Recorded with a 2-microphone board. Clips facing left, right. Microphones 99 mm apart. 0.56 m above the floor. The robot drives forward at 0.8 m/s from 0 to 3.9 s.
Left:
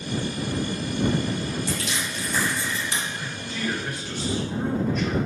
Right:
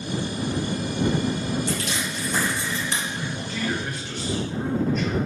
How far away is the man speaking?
About 2 m.